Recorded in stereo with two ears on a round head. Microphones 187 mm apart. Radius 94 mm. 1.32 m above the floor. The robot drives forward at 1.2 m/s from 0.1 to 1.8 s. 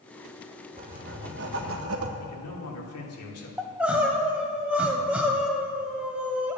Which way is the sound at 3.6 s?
5° right (ahead or behind).